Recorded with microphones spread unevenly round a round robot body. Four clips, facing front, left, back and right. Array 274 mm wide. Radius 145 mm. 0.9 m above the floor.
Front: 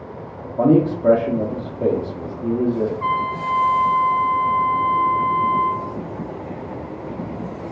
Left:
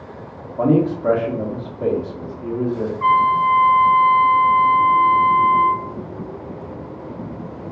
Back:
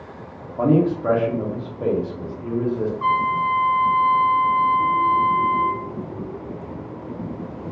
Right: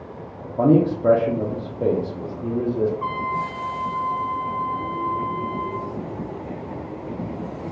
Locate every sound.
0.4 s a man speaking: 10° right, 0.7 m
3.0 s a trumpet: 170° left, 0.7 m